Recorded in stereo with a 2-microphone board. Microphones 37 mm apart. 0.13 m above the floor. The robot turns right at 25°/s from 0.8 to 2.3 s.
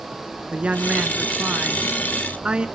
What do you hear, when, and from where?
0.5 s a woman speaking: 95° right, 1.3 m; by 2.7 s 55° right, 1.3 m